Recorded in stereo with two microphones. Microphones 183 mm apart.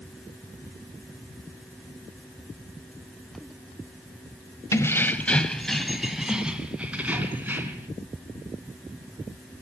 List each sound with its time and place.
4.7 s keys jangling: 15° left (ahead or behind), 1.5 m; by 7.9 s 10° right (ahead or behind), 3.5 m